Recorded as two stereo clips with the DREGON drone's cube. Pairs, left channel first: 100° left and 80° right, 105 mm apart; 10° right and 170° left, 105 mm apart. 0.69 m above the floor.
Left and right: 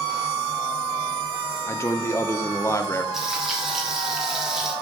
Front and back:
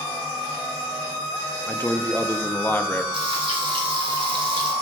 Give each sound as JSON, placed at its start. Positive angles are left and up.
{"t": 1.7, "sound": "a man speaking", "azimuth_deg": 50, "distance_m": 0.6}
{"t": 3.1, "sound": "frying", "azimuth_deg": -165, "distance_m": 1.7}